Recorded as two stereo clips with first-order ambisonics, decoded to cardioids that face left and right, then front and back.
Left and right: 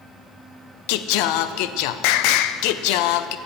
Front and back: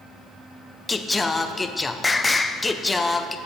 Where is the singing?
80° left, 0.5 m.